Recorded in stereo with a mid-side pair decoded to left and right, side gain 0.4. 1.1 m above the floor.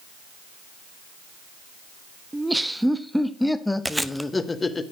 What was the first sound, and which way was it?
Laughter, 15° right.